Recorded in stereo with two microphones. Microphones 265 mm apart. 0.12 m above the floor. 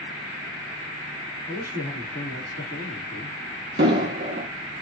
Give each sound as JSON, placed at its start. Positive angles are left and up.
{"t": 1.5, "sound": "a man speaking", "side_deg": 10, "distance_m": 1.3}
{"t": 3.8, "sound": "an explosion", "side_deg": -40, "distance_m": 0.7}